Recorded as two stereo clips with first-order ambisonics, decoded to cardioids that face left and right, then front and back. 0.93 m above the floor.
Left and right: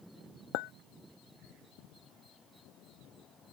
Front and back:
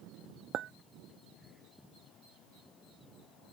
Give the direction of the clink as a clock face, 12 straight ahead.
8 o'clock.